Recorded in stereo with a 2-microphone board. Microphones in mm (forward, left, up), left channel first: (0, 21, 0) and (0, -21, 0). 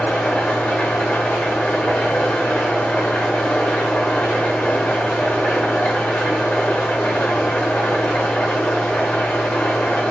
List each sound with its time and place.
0.0 s an engine running: 40° left (ahead or behind), 1.0 m